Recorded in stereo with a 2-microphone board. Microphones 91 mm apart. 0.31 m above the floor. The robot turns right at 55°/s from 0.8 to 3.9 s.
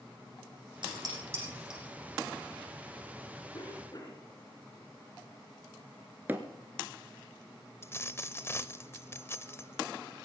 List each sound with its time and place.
0.8 s dishes clattering: 55° right (ahead or behind), 8.5 m; by 1.8 s 5° right (ahead or behind), 8.5 m
3.5 s a cough: 60° left (ahead or behind), 3 m; by 4.3 s 45° left (ahead or behind), 3 m
6.3 s hammering: 20° right (ahead or behind), 1.6 m
7.8 s a dropped coin: 25° left (ahead or behind), 0.5 m